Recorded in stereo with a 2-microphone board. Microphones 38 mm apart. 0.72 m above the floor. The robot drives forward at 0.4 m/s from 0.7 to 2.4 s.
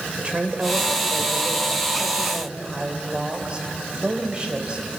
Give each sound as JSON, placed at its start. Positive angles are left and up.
{"t": 0.2, "sound": "a woman speaking", "side_deg": -30, "distance_m": 3.0}